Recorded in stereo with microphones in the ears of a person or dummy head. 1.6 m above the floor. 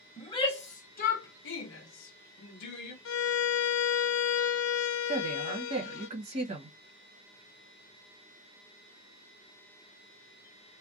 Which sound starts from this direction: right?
A woman speaking, at 5.1 s.